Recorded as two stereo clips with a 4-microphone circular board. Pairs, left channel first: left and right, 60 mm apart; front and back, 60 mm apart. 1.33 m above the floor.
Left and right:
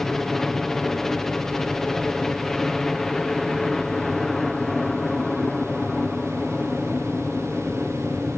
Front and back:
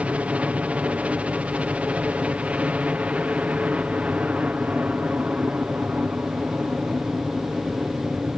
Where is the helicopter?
165° left.